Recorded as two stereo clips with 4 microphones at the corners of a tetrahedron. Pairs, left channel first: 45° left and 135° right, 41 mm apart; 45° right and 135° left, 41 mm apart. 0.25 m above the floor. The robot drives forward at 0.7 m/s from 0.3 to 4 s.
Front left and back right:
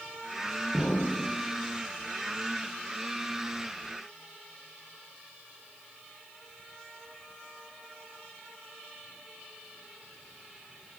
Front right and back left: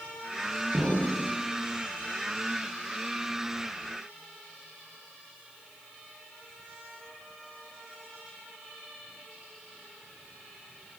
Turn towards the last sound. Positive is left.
turn(degrees=130)